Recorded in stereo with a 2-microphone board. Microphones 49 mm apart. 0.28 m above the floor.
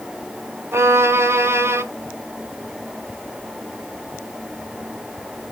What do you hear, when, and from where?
0.7 s a violin: 55° right (ahead or behind), 0.6 m